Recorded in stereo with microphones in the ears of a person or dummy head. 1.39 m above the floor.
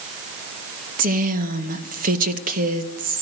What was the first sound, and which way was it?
A woman speaking, 50° right (ahead or behind).